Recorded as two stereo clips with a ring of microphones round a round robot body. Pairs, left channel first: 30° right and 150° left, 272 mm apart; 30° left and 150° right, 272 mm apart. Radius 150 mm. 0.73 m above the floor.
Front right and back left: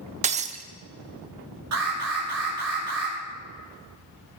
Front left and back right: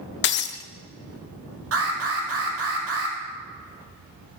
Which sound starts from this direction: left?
Breaking glass, at 0.2 s.